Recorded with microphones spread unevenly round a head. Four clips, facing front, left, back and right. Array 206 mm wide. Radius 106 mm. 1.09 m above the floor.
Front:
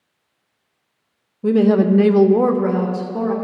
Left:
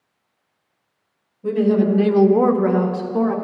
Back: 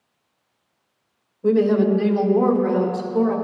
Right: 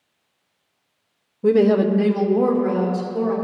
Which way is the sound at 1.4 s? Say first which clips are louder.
Right 2 dB, front 2 dB; 65° right.